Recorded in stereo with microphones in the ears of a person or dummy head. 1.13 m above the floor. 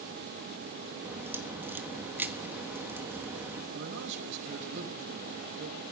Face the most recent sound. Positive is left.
turn(degrees=-65)  # may be behind; listen again after turning